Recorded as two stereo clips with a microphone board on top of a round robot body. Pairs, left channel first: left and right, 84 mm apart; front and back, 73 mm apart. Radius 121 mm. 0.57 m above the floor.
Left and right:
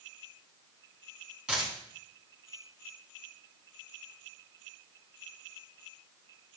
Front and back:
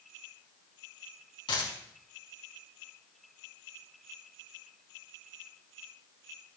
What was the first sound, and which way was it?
A dropped coin, 10° right.